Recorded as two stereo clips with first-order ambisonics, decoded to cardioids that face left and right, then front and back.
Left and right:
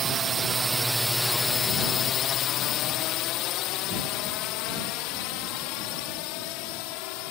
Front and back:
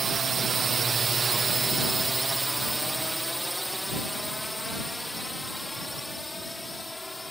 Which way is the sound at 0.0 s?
125° right.